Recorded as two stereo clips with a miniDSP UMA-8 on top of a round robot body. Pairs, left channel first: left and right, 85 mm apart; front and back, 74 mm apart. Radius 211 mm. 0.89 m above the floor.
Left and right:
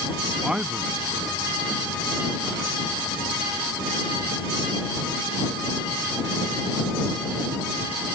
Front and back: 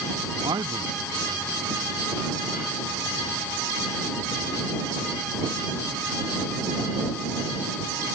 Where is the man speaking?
170° right.